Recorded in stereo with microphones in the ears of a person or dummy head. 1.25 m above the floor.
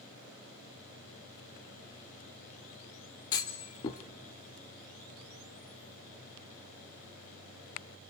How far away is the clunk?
About 0.9 m.